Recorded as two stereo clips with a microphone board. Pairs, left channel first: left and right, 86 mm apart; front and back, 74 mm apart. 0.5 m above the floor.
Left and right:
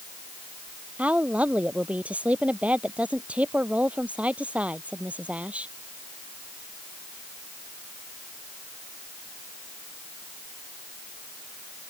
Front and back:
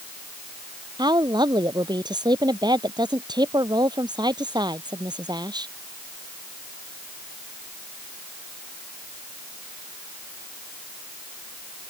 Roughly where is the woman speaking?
Behind.